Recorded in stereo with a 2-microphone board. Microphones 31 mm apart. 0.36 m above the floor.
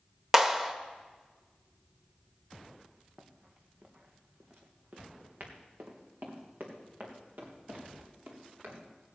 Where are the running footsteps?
30° right (ahead or behind), 1.9 m; by 9.1 s 80° right, 5 m.